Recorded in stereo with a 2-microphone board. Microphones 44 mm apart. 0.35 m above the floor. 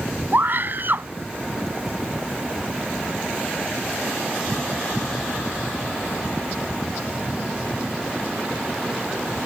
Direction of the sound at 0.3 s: 50° right (ahead or behind).